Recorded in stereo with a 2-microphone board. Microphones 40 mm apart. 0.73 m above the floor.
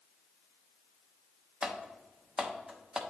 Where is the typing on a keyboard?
15° right (ahead or behind), 0.7 m.